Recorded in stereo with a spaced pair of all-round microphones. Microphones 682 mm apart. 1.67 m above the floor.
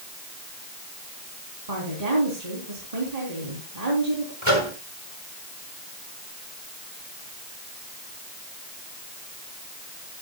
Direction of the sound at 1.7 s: 65° right (ahead or behind).